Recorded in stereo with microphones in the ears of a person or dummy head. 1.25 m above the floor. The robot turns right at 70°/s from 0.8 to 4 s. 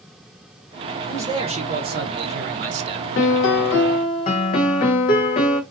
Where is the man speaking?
170° right, 0.7 m; by 3.1 s 35° right, 0.7 m.